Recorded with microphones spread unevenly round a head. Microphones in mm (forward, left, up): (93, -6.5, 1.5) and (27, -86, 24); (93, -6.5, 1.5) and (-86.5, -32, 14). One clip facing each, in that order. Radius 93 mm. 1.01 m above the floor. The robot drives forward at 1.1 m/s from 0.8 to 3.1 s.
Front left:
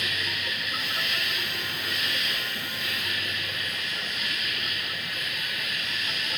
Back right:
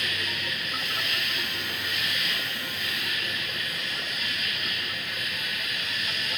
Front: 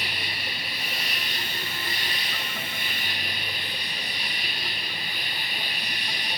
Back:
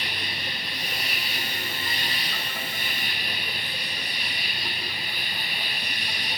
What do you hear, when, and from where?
0.0 s an insect: 90° left, 2 m; by 6.4 s 145° left, 3.5 m